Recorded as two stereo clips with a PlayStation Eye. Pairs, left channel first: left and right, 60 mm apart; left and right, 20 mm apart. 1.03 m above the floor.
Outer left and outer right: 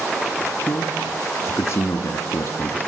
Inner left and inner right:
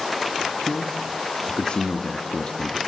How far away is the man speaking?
About 2 m.